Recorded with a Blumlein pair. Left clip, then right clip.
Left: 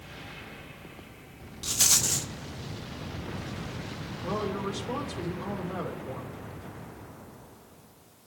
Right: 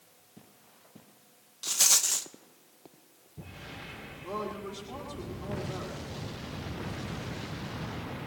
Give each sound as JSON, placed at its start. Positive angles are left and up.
{"t": 1.6, "sound": "a rattle", "azimuth_deg": 0, "distance_m": 0.5}
{"t": 4.2, "sound": "a woman speaking", "azimuth_deg": 65, "distance_m": 2.5}